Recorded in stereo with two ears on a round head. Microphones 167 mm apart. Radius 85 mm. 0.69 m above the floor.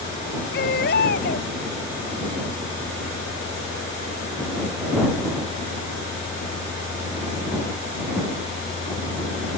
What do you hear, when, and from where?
0.5 s a baby crying: 50° left (ahead or behind)